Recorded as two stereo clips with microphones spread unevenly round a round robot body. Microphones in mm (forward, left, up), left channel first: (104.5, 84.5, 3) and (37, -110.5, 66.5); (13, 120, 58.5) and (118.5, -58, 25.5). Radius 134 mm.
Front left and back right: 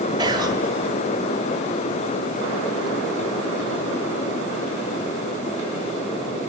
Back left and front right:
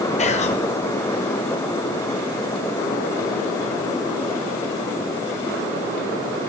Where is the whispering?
165° left, 1.4 m.